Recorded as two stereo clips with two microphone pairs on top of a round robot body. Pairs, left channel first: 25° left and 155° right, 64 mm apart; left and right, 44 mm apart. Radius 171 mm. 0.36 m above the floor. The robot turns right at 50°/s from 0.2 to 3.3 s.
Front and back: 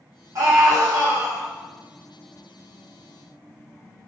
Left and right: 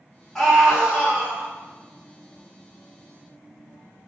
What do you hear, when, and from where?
0.3 s a scream: 170° left, 1.6 m; by 1.5 s 130° right, 1.6 m